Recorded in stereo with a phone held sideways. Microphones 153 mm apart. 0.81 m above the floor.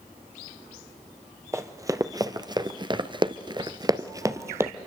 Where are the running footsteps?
20° right (ahead or behind), 1.5 m; by 4.7 s 15° right (ahead or behind), 1.3 m.